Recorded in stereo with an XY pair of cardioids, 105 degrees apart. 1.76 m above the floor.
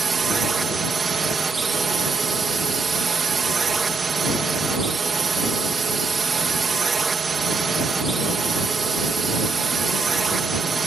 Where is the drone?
30° right.